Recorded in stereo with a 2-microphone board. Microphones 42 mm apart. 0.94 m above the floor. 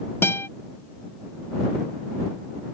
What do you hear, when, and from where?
0.2 s a guitar: 75° left (ahead or behind)